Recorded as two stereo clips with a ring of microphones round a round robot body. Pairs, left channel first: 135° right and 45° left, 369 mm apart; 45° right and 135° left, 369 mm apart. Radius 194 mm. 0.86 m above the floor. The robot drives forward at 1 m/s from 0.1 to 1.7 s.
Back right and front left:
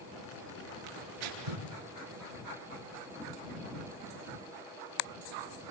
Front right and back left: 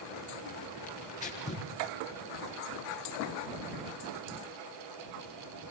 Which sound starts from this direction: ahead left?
Tearing paper, at 0.9 s.